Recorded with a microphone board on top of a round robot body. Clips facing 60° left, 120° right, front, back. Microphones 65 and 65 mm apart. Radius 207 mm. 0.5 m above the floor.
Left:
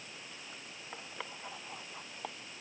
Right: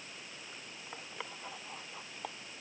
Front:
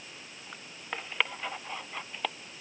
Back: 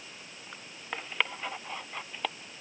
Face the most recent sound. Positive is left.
No sound to turn to.